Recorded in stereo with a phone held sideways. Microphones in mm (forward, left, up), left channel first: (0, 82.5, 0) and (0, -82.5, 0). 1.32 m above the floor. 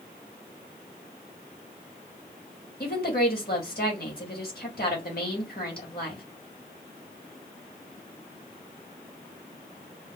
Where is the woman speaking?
65° left (ahead or behind), 2 m.